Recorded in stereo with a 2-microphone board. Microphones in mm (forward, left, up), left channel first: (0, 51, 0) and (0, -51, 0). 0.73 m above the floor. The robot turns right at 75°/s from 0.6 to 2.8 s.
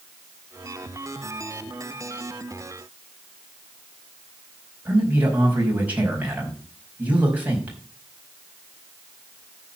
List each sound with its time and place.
4.8 s a man speaking: 15° right (ahead or behind), 5 m